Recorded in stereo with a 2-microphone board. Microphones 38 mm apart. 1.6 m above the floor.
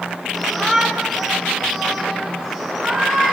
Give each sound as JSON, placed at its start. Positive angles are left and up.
{"t": 0.3, "sound": "a shout", "side_deg": 0, "distance_m": 4.0}